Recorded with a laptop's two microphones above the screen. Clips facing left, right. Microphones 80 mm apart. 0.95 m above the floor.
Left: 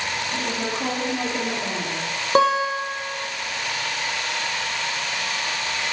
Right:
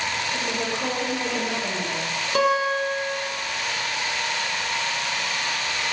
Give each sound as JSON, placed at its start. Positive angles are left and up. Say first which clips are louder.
{"t": 0.3, "sound": "a woman speaking", "louder": "left 1 dB", "side_deg": 40, "distance_m": 0.9}
{"t": 2.4, "sound": "a guitar", "louder": "left 2 dB", "side_deg": 35, "distance_m": 0.7}